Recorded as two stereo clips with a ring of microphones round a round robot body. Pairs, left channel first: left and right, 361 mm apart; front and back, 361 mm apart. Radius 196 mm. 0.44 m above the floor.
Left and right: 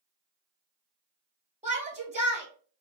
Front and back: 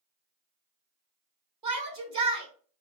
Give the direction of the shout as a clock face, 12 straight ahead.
5 o'clock.